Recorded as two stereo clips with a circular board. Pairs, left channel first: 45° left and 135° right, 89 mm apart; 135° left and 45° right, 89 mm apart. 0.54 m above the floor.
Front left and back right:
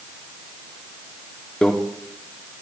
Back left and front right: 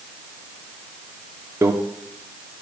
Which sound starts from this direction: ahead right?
A microwave, at 1.6 s.